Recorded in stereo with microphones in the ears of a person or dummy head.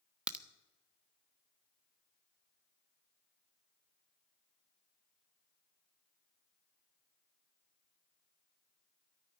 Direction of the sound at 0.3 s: 10° right (ahead or behind).